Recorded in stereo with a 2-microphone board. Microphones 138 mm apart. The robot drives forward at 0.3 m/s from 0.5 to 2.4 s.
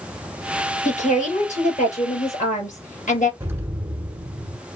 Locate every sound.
0.8 s a woman speaking: 65° left (ahead or behind), 3 m; by 3.3 s 70° left (ahead or behind), 3 m
3.4 s an explosion: 20° right (ahead or behind), 1.0 m